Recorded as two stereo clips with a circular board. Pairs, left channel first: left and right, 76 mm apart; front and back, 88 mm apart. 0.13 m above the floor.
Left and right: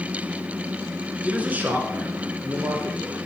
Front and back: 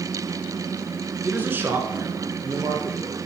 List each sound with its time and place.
1.2 s a man speaking: 140° right, 1.1 m; by 3.2 s 135° right, 1.9 m